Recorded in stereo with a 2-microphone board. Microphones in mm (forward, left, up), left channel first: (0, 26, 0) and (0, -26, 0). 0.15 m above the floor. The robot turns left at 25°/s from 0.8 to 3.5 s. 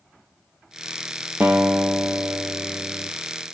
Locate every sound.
1.4 s a guitar: 35° right, 1.0 m; by 3.1 s 80° right, 1.0 m